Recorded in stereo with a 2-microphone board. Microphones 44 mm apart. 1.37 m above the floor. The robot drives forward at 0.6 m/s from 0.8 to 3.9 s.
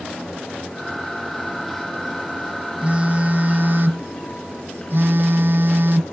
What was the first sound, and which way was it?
A phone buzzing, 30° right (ahead or behind).